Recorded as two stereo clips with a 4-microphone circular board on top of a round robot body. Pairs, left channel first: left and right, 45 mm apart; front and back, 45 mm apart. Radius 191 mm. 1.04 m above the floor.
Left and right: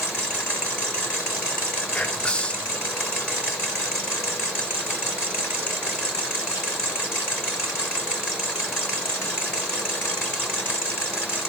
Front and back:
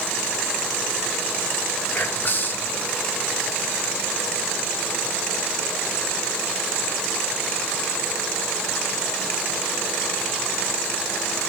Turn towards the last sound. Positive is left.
turn(degrees=30)